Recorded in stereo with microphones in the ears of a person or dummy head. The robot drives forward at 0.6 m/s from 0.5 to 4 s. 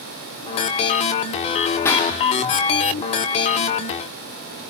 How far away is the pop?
About 0.6 m.